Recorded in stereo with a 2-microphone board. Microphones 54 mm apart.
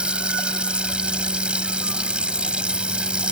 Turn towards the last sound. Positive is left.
turn(degrees=-20)  # may be behind; listen again after turning